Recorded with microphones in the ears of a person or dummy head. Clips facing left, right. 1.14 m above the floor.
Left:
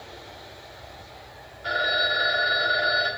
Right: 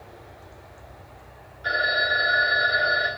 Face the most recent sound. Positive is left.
turn(degrees=-20)  # may be behind; listen again after turning